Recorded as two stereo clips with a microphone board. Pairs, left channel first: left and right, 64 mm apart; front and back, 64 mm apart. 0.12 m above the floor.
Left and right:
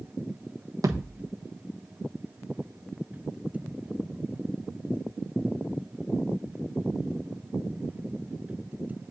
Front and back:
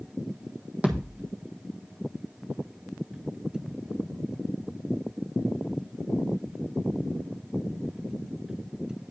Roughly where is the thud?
Behind right.